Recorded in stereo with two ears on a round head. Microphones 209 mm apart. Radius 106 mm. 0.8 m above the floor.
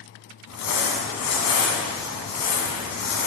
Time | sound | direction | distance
0.5 | crumpling | 65° left (ahead or behind) | 1.6 m